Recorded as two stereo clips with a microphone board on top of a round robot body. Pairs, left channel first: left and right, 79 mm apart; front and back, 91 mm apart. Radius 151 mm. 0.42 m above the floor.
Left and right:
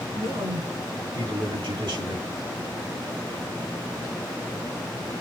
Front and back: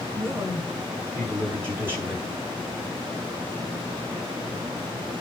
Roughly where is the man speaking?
Behind right.